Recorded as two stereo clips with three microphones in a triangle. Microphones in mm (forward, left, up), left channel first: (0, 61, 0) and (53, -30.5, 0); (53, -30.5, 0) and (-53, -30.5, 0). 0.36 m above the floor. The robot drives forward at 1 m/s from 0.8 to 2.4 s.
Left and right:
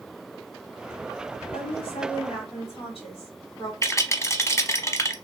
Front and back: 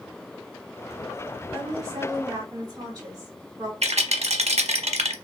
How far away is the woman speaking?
About 2.5 m.